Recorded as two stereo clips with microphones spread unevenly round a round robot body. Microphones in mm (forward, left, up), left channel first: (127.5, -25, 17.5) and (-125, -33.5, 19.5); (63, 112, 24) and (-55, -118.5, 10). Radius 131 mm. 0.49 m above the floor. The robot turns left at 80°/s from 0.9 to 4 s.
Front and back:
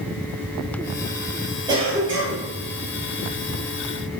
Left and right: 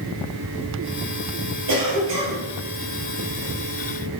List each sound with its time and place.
1.7 s a cough: 105° right, 3 m; by 2.5 s 165° right, 3 m